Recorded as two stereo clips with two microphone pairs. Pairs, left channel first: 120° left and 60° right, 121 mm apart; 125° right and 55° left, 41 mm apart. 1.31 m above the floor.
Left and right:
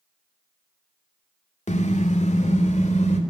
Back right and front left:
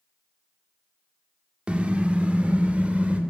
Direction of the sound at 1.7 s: 115° left.